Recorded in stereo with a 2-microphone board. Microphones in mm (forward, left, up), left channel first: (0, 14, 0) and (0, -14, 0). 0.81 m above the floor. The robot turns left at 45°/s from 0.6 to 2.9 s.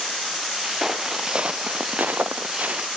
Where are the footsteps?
5° right (ahead or behind); by 2.9 s 60° right (ahead or behind).